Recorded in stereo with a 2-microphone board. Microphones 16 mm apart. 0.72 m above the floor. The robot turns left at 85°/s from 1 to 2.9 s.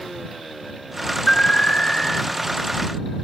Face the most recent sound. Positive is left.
turn(degrees=-30)